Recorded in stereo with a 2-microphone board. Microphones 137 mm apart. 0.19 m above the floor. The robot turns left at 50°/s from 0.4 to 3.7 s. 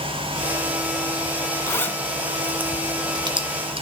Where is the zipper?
20° left (ahead or behind), 1.7 m; by 3.8 s 45° right (ahead or behind), 1.7 m.